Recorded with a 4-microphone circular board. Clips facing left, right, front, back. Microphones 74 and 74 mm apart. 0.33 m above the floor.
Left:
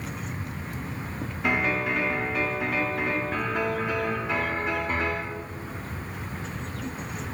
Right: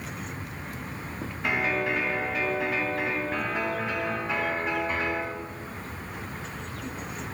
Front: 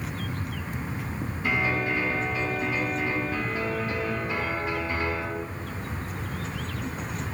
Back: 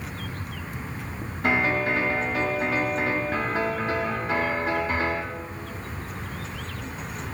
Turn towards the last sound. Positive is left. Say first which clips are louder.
# left 1 dB, back 4 dB
turn(degrees=180)